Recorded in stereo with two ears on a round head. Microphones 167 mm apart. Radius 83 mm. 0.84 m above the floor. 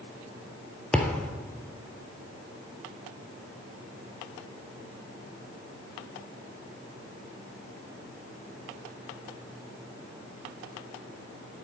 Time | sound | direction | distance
0.9 | a thud | 5° left (ahead or behind) | 1.2 m